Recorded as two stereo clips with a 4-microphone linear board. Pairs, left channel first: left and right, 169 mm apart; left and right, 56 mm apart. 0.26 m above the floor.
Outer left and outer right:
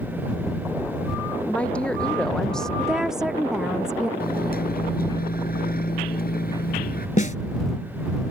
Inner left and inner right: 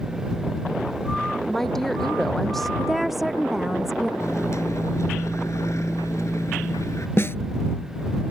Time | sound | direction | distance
1.5 | a woman speaking | 5° left (ahead or behind) | ?
2.8 | a woman speaking | 5° right (ahead or behind) | ?
4.2 | a microwave | 65° left (ahead or behind) | ?
7.2 | a snare drum | 50° left (ahead or behind) | ?